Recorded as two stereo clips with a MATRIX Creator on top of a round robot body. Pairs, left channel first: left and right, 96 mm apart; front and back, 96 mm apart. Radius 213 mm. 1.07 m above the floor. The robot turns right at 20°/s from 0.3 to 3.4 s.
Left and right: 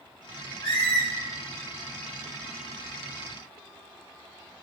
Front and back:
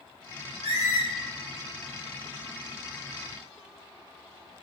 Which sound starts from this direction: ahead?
A squeak, at 0.6 s.